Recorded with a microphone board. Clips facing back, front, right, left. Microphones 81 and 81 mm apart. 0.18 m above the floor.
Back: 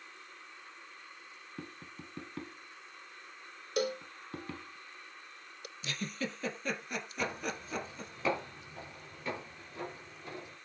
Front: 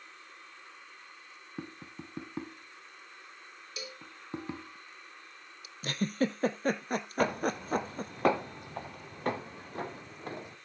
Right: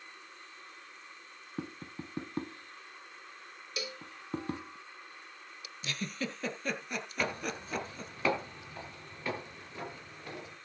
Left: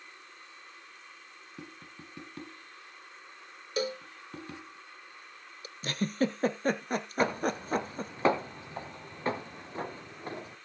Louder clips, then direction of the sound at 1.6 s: Front 4 dB, right 7 dB; 60° right.